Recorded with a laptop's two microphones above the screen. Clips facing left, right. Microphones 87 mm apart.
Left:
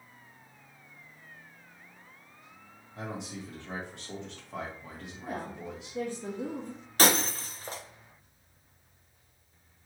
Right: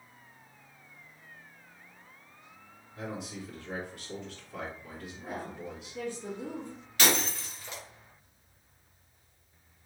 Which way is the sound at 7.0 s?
40° left (ahead or behind).